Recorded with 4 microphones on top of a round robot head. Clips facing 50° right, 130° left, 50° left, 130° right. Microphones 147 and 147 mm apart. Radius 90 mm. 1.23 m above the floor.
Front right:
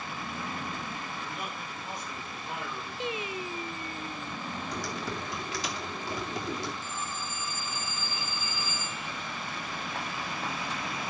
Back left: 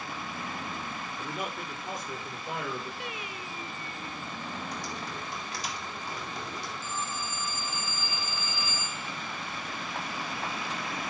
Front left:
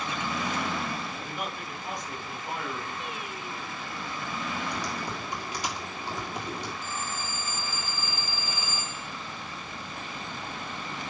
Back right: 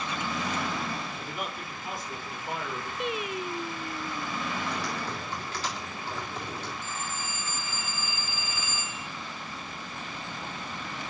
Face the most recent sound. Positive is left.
turn(degrees=105)